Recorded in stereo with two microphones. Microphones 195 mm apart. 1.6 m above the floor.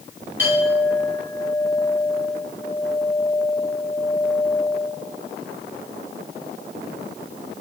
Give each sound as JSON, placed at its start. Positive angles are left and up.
{"t": 0.4, "sound": "a clink", "side_deg": 85, "distance_m": 9.5}